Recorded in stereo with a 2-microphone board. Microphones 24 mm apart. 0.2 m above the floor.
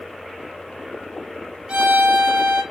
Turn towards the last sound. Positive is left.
turn(degrees=-40)  # may be behind; listen again after turning